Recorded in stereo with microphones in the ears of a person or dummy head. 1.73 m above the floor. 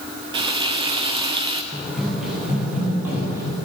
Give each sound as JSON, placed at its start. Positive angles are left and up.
{"t": 0.3, "sound": "frying", "side_deg": -30, "distance_m": 0.6}
{"t": 1.7, "sound": "running footsteps", "side_deg": 0, "distance_m": 2.5}